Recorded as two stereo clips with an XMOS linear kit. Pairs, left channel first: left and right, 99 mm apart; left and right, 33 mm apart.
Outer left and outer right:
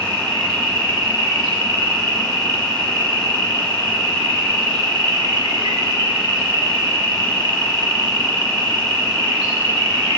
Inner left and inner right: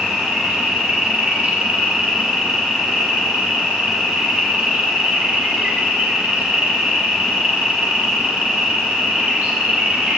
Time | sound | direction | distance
0.0 | an insect | 55° right (ahead or behind) | 1.6 m